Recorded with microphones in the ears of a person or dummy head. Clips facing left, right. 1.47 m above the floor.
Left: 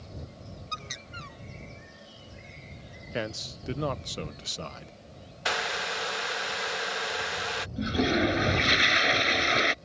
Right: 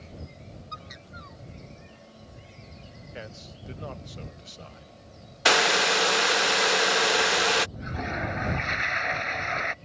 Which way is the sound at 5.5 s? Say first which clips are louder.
Right 9 dB; 60° right (ahead or behind).